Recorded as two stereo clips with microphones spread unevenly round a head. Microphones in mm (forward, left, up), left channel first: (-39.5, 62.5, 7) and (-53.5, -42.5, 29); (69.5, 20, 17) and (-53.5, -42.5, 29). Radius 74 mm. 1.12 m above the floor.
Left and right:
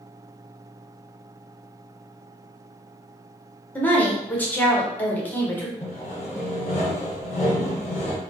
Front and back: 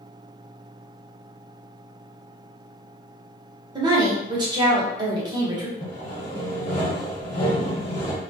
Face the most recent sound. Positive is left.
turn(degrees=85)